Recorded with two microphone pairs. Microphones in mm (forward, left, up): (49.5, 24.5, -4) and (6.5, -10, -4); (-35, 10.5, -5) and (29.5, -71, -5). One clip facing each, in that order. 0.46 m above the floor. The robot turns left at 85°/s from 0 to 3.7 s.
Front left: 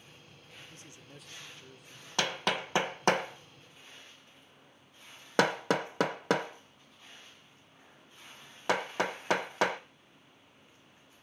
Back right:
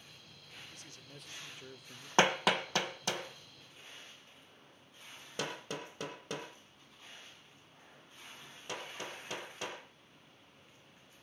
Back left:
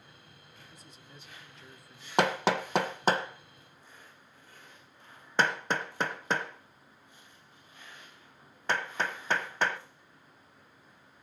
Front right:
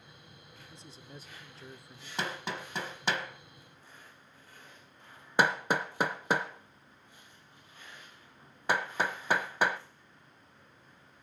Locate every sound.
0.7 s a man speaking: straight ahead, 0.9 m; by 2.1 s 120° right, 0.9 m
2.2 s hammering: 155° left, 0.7 m; by 9.8 s 25° left, 0.7 m